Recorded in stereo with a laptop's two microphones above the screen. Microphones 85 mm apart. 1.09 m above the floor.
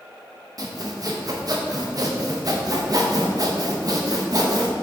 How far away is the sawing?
About 0.9 m.